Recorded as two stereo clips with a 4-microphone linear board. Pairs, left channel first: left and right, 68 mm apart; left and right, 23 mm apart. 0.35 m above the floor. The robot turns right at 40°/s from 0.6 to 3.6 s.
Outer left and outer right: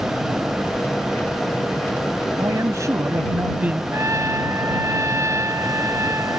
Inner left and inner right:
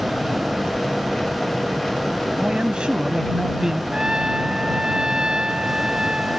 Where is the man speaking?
75° right; by 3.8 s 25° right.